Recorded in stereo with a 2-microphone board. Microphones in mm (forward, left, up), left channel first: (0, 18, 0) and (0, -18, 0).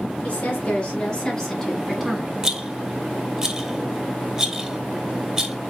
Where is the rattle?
20° right (ahead or behind), 0.6 m.